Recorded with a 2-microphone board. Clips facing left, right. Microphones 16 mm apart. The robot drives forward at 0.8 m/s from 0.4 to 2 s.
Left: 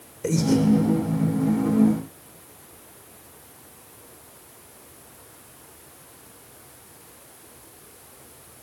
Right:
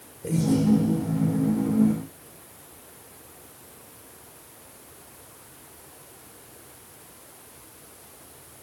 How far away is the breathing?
About 1.6 m.